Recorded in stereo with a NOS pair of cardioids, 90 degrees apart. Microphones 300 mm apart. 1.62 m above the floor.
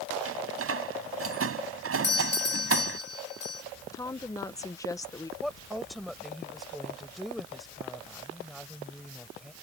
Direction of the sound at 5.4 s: Straight ahead.